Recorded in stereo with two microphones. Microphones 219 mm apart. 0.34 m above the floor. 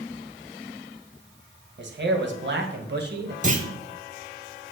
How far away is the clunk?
About 1.2 m.